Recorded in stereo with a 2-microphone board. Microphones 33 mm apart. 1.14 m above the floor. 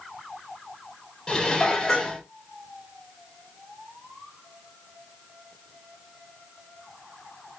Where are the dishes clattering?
25° left (ahead or behind), 0.9 m.